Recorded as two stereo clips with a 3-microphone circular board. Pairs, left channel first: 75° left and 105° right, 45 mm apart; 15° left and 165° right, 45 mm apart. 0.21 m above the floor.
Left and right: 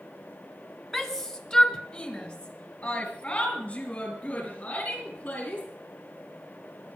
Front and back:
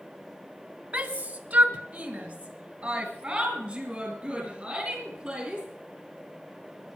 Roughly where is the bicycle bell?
No bicycle bell in this recording.